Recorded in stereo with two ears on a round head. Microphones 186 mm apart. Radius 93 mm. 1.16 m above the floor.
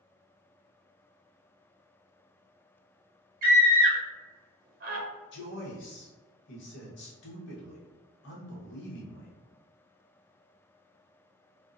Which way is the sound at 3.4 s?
45° right (ahead or behind).